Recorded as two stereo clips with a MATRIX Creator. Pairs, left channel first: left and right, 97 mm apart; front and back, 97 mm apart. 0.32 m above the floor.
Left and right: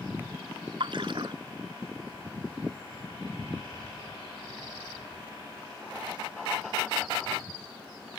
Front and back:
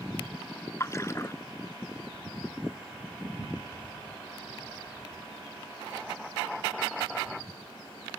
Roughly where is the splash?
Ahead right.